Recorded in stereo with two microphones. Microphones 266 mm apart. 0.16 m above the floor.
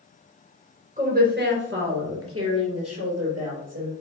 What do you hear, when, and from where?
1.0 s a woman speaking: 30° right (ahead or behind), 2.5 m; by 3.9 s 70° right (ahead or behind), 4 m